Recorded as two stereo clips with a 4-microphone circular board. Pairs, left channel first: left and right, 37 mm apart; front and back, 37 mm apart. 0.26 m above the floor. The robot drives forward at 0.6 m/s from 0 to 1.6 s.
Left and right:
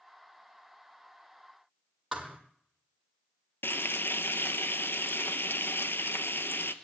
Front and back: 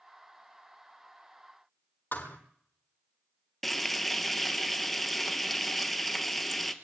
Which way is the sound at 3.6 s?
80° left.